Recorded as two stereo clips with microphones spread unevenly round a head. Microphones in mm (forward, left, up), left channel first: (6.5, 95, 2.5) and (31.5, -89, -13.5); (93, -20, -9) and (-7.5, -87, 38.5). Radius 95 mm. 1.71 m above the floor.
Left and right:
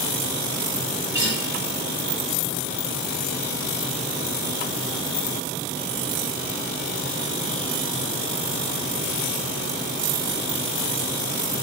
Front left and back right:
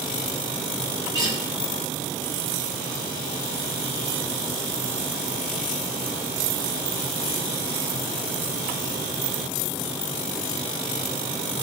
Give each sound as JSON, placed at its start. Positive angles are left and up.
{"t": 1.1, "sound": "a guitar", "azimuth_deg": -155, "distance_m": 1.4}